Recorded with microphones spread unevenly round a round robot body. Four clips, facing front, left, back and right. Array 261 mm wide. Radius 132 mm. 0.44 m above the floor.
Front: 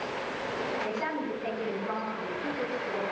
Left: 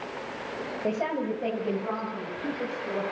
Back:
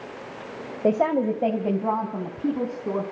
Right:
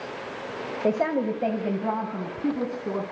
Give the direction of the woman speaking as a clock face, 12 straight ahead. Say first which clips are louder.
Right 5 dB, back 11 dB; 5 o'clock.